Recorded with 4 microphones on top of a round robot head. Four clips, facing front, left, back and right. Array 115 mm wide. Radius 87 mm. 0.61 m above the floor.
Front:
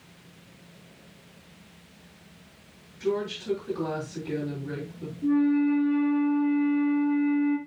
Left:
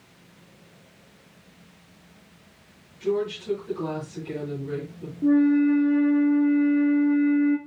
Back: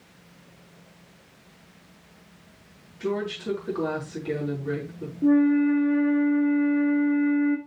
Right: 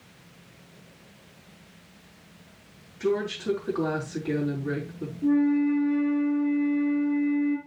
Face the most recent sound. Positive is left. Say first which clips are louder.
# left 3 dB, back 3 dB
turn(degrees=155)